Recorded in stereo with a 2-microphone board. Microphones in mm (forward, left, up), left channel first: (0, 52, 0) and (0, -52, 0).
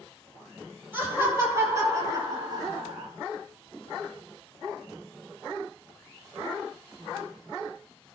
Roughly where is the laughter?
Right.